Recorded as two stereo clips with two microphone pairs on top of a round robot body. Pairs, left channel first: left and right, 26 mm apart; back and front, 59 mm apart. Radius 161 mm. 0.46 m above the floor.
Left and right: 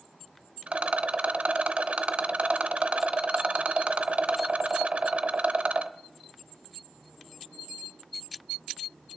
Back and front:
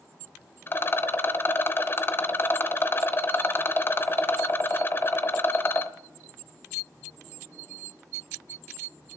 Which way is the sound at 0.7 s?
125° right.